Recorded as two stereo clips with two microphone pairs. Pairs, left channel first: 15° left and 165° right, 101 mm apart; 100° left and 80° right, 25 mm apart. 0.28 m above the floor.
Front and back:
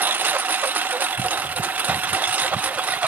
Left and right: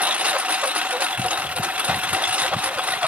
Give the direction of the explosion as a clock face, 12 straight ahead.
I don't hear an explosion.